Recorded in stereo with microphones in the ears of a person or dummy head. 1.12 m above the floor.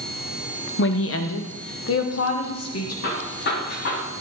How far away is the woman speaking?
About 1.0 m.